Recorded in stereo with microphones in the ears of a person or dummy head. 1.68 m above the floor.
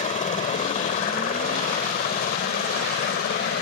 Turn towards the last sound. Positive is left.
turn(degrees=50)  # may be behind; listen again after turning